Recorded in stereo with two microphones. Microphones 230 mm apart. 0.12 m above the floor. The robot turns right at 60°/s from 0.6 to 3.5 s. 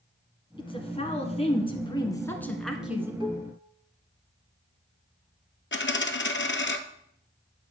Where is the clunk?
I don't hear a clunk.